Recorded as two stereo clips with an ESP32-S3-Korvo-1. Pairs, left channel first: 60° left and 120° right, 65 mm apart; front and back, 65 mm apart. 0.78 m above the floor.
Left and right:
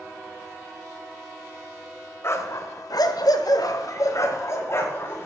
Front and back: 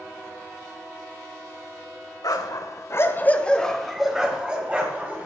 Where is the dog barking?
10° left, 1.6 m; by 5.3 s 115° left, 3 m.